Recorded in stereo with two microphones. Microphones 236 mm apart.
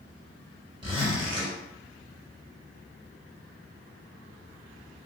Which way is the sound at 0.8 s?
20° right (ahead or behind).